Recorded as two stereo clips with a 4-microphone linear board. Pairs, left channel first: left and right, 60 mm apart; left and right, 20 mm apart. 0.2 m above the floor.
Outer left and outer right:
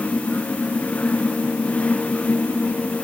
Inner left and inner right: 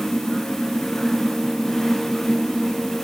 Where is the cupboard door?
No cupboard door in this recording.